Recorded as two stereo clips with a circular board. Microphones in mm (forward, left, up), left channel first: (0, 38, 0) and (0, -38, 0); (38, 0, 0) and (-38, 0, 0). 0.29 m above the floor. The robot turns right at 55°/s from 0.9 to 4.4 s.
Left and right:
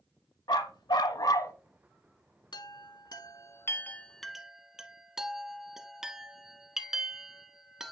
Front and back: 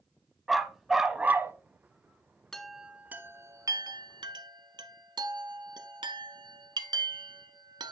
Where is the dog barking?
95° left, 0.6 m; by 1.6 s 130° left, 0.6 m.